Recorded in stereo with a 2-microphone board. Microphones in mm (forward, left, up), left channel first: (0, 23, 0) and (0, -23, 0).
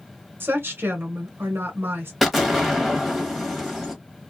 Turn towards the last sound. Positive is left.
turn(degrees=0)  # may be behind; listen again after turning